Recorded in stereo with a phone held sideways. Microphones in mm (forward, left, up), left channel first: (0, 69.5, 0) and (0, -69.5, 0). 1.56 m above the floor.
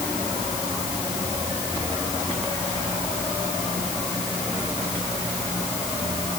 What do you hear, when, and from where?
Only background noise.